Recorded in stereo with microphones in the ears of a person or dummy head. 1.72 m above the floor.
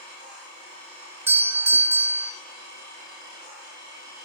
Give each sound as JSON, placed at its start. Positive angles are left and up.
{"t": 1.3, "sound": "a doorbell", "side_deg": -15, "distance_m": 0.7}